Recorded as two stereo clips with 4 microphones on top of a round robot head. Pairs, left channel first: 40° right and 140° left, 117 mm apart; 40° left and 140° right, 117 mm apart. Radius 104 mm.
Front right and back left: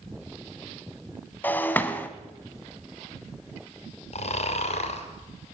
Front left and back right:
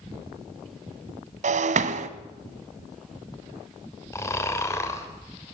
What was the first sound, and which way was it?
Breaking glass, 115° right.